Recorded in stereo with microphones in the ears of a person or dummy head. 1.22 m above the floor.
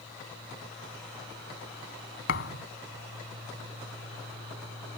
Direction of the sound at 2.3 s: 65° left (ahead or behind).